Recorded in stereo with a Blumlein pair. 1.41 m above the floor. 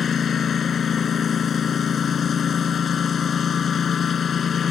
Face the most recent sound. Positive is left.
turn(degrees=20)